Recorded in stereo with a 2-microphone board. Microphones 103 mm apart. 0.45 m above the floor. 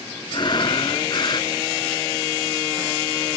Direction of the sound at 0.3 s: 50° left (ahead or behind).